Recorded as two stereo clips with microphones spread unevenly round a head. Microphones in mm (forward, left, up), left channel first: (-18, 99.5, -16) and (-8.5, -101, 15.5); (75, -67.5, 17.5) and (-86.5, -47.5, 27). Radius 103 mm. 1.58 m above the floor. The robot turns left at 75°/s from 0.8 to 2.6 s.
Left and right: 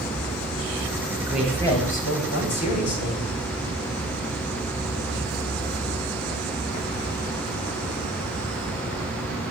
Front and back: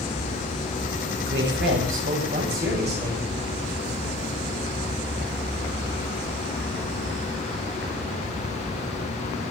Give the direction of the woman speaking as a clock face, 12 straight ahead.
5 o'clock.